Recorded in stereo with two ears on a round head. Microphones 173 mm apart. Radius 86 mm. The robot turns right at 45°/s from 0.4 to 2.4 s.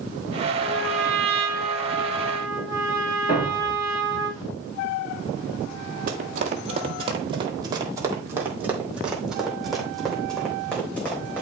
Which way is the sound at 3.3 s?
35° left (ahead or behind).